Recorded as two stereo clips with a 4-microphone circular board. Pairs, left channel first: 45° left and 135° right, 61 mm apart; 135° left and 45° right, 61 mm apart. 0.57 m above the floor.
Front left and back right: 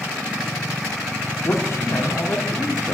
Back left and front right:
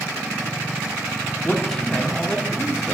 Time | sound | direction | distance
1.4 | a man speaking | 55° left | 1.0 m